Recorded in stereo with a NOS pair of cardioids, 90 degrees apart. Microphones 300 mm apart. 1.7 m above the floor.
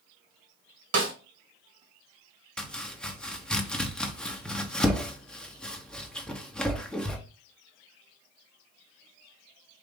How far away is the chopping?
About 0.8 m.